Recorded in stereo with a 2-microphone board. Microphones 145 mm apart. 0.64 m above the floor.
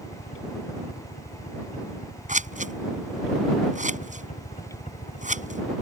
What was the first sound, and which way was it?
A helicopter, 70° left (ahead or behind).